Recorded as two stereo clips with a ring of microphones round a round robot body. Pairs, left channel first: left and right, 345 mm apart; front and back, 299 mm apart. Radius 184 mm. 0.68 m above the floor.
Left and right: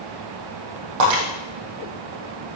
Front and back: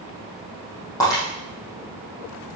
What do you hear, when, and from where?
1.0 s breaking glass: 80° right, 6.5 m